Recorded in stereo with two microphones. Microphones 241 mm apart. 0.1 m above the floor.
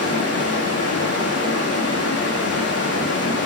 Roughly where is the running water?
Left.